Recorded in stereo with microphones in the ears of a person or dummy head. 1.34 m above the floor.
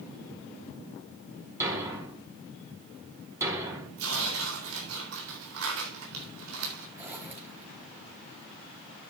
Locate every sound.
1.6 s a thud: 15° right (ahead or behind), 4 m
4.0 s tearing paper: 85° right, 3.5 m
7.0 s a zipper: 10° right (ahead or behind), 4 m